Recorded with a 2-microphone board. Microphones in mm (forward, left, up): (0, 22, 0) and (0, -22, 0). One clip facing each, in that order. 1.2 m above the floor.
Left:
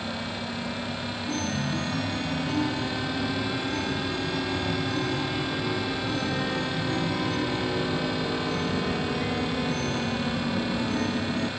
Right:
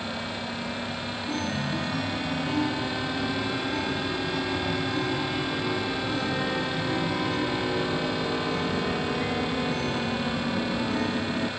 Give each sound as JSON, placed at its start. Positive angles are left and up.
{"t": 1.3, "sound": "a chime", "side_deg": -5}